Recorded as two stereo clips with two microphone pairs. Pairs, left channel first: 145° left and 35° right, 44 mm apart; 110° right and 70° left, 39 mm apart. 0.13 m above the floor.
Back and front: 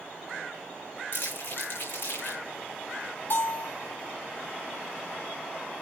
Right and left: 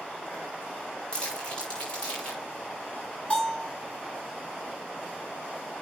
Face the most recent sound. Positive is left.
turn(degrees=-170)